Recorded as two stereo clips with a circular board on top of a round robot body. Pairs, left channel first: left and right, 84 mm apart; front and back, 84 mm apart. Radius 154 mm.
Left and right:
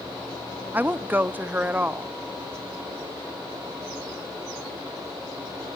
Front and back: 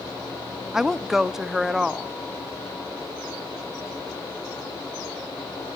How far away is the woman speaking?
About 1.0 m.